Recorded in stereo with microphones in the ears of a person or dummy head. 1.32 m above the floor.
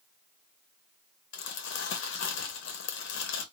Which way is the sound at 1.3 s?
60° left (ahead or behind).